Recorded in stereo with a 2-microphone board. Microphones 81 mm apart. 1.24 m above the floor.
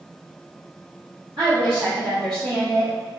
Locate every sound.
1.4 s a woman speaking: 80° right, 1.4 m